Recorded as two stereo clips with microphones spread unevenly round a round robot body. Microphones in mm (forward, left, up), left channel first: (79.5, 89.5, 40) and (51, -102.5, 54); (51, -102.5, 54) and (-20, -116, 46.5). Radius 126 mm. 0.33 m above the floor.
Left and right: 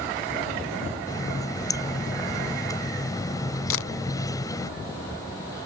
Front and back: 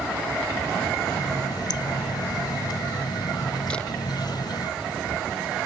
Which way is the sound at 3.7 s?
95° left.